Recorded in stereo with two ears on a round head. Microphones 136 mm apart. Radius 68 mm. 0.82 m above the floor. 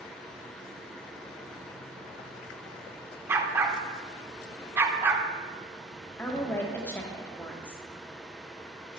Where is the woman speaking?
15° left (ahead or behind), 0.8 m.